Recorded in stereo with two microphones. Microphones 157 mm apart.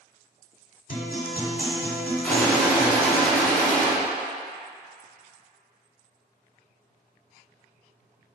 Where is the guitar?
55° left (ahead or behind), 1.6 m.